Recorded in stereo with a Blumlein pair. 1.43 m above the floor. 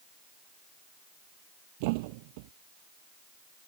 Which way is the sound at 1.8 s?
45° right.